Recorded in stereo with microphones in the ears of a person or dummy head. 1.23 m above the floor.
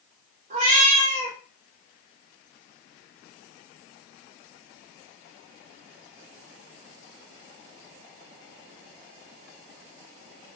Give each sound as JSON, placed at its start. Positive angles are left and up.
{"t": 0.5, "sound": "a cat meowing", "side_deg": -40, "distance_m": 1.2}